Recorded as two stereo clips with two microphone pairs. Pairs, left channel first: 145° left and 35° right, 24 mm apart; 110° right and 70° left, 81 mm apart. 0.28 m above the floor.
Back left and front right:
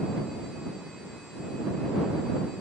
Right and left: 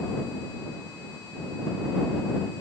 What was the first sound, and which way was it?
Only background noise.